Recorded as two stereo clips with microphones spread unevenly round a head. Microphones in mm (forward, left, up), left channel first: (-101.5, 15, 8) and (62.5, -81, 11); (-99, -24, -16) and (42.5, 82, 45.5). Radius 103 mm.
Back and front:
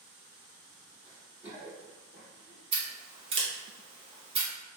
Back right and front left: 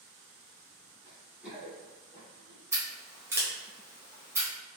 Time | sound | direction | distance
1.1 | running footsteps | 30° left | 1.9 m
2.7 | scissors | 10° left | 0.6 m